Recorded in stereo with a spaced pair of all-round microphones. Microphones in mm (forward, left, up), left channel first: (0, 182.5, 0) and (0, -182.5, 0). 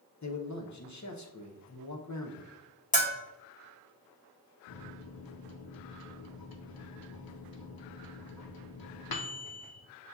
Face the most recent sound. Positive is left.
turn(degrees=70)  # may be behind; listen again after turning